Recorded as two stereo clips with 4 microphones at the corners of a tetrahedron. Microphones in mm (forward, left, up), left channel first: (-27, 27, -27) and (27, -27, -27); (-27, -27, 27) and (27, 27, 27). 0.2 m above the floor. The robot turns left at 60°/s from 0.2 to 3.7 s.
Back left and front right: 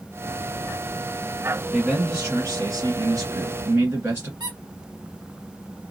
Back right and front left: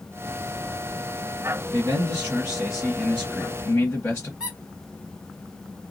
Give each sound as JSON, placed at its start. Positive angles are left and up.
{"t": 1.7, "sound": "a man speaking", "azimuth_deg": 35, "distance_m": 1.6}
{"t": 4.4, "sound": "a squeak", "azimuth_deg": -30, "distance_m": 1.3}